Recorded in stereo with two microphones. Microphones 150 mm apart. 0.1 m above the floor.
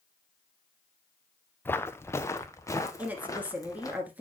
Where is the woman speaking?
10° right (ahead or behind), 1.5 m.